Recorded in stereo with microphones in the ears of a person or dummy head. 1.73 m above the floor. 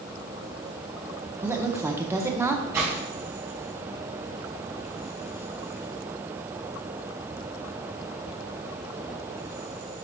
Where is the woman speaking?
15° right (ahead or behind), 0.9 m.